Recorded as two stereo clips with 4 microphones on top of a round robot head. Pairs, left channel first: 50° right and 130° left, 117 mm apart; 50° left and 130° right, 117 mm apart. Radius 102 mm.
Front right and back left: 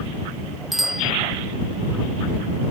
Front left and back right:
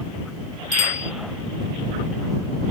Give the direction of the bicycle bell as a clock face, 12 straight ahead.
11 o'clock.